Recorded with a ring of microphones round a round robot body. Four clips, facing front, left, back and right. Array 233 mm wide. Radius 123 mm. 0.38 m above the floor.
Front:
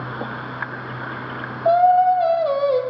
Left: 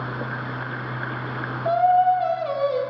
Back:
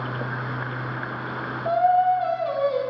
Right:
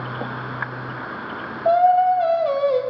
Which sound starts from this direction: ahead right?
Singing, at 1.6 s.